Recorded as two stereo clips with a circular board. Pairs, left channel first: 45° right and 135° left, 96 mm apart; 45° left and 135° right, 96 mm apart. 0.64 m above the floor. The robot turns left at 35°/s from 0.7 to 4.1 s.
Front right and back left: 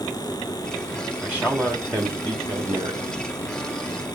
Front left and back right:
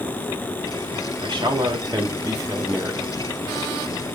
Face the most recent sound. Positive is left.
turn(degrees=115)